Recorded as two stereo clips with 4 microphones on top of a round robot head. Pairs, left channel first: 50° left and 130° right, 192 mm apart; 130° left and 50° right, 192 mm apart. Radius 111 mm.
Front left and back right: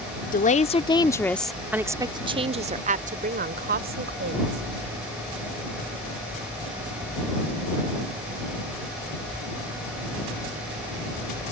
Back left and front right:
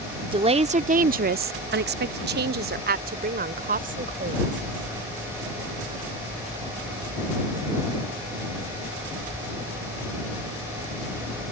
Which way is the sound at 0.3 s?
10° left.